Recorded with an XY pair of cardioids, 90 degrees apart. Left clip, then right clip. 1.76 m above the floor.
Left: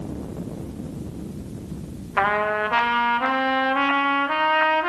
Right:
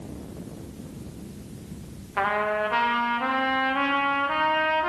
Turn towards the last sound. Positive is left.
turn(degrees=35)